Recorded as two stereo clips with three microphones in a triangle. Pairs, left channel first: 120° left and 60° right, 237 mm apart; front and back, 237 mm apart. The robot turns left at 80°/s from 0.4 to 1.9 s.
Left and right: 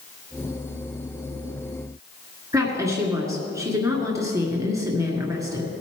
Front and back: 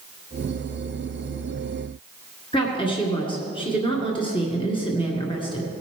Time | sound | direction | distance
2.5 | a woman speaking | 5° right | 1.8 m